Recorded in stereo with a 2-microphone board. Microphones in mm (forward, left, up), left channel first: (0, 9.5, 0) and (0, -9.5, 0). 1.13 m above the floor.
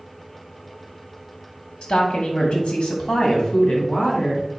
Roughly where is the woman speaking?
Left.